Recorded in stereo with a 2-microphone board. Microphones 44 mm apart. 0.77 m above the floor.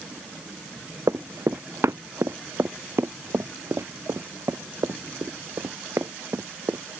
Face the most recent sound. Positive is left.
turn(degrees=-80)